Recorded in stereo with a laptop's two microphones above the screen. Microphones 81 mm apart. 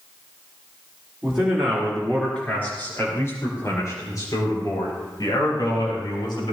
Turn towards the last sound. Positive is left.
turn(degrees=65)  # may be behind; listen again after turning